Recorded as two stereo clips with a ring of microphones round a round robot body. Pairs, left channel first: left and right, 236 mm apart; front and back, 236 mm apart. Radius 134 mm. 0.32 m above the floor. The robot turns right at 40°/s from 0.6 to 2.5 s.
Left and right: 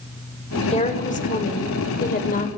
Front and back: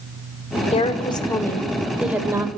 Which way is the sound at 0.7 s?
45° left.